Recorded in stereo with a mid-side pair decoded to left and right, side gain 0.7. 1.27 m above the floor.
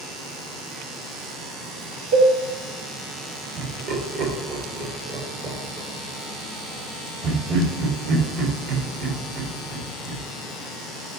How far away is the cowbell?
About 2 m.